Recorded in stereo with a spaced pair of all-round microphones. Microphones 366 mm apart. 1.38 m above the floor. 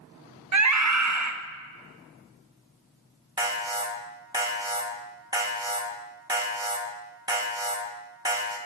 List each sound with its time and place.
0.5 s a scream: 50° right (ahead or behind), 0.6 m
3.4 s an alarm: 10° right (ahead or behind), 1.3 m